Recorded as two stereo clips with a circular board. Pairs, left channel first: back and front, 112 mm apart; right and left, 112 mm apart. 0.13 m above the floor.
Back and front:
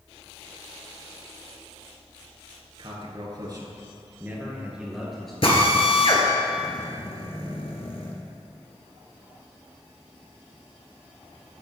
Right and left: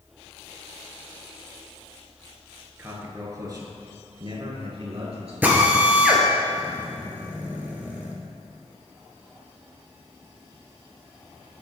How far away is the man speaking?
About 2 m.